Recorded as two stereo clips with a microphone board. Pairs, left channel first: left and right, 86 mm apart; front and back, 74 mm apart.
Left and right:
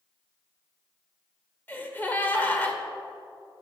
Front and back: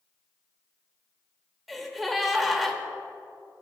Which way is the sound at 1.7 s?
90° left.